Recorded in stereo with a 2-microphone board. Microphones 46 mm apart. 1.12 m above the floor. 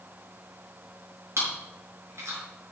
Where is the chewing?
75° right (ahead or behind), 5.5 m.